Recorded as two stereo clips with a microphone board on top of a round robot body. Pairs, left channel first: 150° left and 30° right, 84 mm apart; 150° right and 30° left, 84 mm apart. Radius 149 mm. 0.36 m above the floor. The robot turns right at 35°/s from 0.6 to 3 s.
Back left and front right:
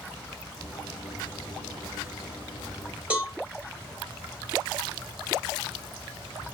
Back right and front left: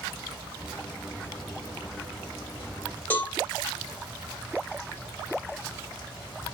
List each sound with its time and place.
3.1 s a cowbell: 95° right, 1.3 m